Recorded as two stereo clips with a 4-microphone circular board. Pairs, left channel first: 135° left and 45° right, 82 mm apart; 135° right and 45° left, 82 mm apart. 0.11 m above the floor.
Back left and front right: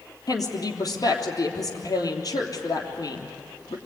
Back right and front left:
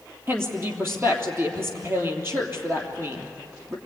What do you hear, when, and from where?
0.3 s a woman speaking: 100° left, 3 m